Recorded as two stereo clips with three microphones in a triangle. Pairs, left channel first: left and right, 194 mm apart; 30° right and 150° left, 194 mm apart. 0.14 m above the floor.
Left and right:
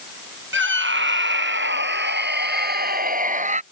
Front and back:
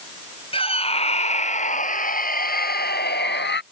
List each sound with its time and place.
0.5 s a scream: 90° right; by 3.6 s 40° right